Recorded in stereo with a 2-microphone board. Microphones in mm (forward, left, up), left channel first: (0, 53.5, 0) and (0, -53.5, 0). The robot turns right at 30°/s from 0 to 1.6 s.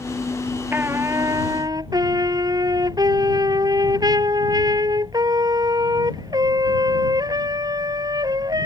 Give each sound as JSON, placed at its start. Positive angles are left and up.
{"t": 0.7, "sound": "a trumpet", "side_deg": -20}